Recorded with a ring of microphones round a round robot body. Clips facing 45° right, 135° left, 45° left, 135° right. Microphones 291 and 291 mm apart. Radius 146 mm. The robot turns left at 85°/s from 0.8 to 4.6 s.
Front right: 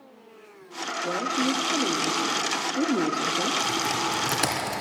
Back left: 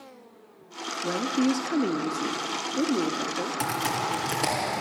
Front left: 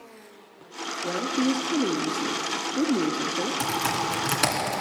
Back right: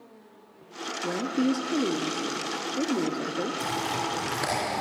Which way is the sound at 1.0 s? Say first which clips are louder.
Back left 3 dB, even; straight behind.